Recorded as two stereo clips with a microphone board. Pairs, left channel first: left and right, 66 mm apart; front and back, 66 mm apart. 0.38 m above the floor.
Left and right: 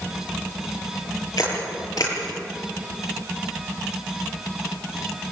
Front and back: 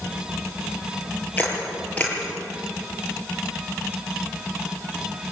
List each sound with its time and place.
1.4 s a camera shutter: 70° left, 8.5 m